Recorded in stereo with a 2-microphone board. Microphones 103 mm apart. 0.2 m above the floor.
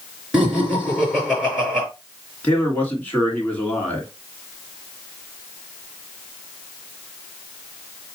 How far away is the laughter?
About 3.5 m.